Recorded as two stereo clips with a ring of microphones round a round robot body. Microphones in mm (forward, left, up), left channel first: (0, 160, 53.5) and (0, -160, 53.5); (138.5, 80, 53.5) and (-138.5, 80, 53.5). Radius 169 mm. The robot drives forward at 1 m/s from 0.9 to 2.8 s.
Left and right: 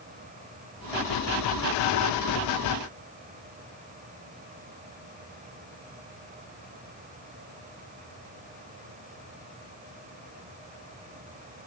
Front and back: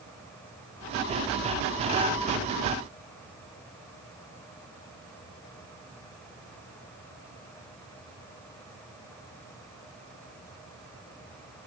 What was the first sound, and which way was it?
Only background noise.